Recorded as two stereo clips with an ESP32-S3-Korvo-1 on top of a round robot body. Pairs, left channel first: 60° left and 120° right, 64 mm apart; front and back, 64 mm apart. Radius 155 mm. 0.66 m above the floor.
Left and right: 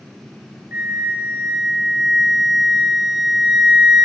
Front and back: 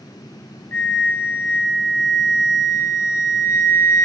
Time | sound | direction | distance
0.7 | a flute | 50° right | 1.2 m